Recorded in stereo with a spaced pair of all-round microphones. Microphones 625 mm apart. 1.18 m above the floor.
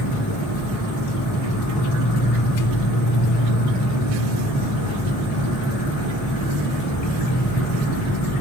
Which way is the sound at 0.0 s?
65° left (ahead or behind).